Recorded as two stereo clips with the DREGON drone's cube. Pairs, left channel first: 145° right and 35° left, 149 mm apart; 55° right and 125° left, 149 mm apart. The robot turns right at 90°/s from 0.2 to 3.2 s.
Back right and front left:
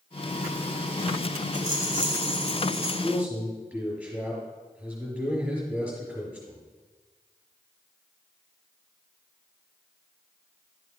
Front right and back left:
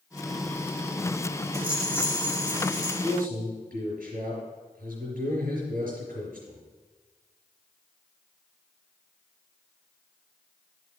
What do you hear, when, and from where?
1.5 s a rattle: 165° right, 2.5 m; by 2.9 s 45° right, 2.5 m
3.0 s a man speaking: 95° left, 4.5 m; by 6.6 s 110° left, 4.5 m